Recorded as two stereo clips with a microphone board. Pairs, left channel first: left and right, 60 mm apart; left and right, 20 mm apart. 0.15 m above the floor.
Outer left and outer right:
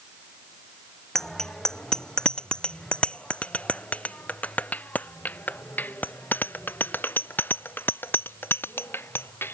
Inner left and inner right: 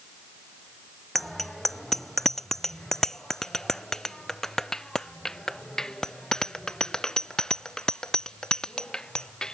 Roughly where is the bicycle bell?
Centre.